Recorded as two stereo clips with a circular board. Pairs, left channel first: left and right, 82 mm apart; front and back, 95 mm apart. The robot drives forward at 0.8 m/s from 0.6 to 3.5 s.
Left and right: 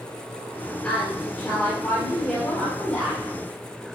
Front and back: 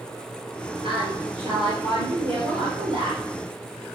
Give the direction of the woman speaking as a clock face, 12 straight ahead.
6 o'clock.